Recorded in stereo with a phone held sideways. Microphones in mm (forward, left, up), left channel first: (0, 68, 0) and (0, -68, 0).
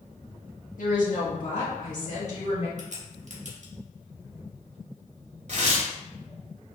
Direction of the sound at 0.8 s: 80° left.